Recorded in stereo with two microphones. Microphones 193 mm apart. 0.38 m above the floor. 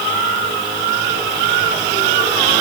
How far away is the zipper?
I don't hear a zipper.